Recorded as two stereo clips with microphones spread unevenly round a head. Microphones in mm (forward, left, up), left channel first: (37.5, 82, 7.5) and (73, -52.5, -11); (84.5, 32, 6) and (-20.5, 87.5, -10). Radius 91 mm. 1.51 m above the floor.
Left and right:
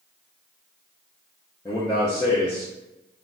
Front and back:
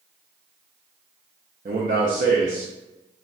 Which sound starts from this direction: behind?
A man speaking, at 1.6 s.